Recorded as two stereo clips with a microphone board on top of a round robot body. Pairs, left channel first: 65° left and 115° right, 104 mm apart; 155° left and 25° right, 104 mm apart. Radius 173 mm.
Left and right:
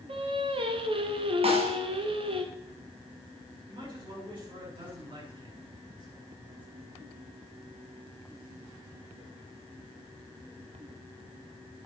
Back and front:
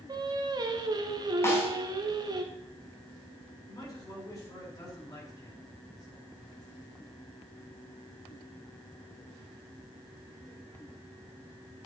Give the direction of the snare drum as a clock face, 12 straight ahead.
5 o'clock.